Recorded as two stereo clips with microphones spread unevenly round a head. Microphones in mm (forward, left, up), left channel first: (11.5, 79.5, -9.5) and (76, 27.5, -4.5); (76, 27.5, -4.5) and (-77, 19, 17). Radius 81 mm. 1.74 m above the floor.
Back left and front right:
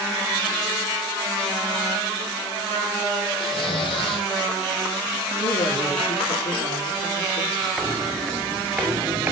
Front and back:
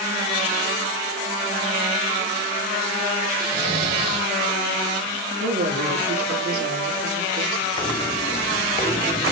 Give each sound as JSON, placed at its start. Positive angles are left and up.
{"t": 3.4, "sound": "snoring", "azimuth_deg": 155, "distance_m": 4.0}
{"t": 5.4, "sound": "a woman speaking", "azimuth_deg": 160, "distance_m": 5.0}
{"t": 7.8, "sound": "footsteps", "azimuth_deg": 45, "distance_m": 1.9}